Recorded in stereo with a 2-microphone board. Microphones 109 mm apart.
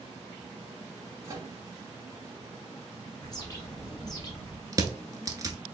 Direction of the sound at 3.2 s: 35° left (ahead or behind).